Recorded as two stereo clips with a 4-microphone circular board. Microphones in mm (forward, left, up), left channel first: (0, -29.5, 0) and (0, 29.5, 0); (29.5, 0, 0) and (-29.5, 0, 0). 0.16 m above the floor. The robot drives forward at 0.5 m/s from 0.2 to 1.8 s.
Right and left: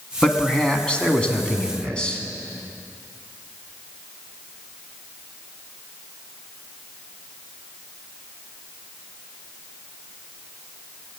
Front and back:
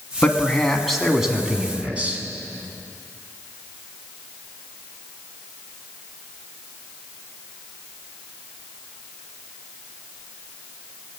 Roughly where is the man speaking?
Ahead right.